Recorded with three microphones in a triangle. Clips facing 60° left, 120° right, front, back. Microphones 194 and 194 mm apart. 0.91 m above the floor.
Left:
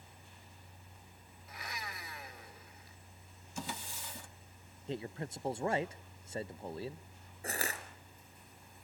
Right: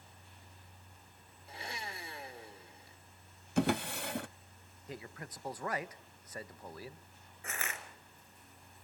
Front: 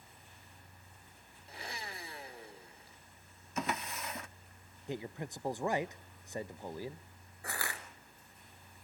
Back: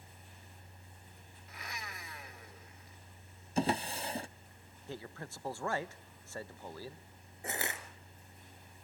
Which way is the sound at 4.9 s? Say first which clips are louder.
Left 7 dB, front 5 dB; 50° left.